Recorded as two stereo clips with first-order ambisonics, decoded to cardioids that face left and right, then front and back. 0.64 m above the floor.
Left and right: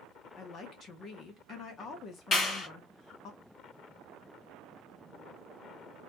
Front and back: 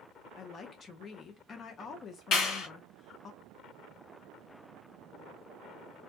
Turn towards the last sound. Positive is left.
turn(degrees=35)